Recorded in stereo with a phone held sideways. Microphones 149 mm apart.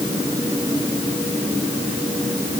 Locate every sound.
Only background noise.